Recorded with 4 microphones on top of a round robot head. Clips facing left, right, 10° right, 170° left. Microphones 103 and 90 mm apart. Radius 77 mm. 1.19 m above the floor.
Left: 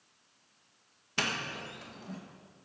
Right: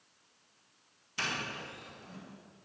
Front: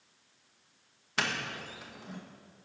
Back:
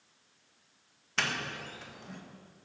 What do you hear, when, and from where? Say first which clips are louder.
1.2 s a doorbell: left 2 dB, even; 70° left, 1.6 m